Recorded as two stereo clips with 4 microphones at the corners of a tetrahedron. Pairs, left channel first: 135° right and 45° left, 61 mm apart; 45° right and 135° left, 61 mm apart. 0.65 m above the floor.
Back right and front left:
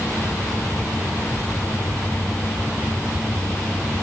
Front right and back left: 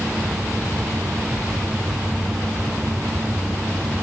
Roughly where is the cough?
No cough in this recording.